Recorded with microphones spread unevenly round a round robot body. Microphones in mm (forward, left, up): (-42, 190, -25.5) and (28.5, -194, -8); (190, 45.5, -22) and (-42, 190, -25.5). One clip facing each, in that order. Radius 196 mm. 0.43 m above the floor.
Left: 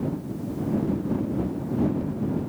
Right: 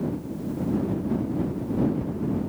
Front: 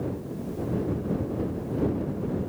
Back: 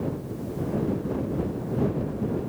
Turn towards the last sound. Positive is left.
No sound to turn to.